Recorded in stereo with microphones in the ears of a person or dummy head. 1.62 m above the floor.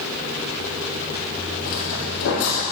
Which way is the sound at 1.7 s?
60° left (ahead or behind).